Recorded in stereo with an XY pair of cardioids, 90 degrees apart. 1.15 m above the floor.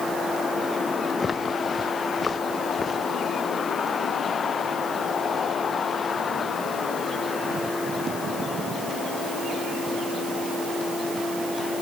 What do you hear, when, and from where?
1.2 s footsteps: 40° left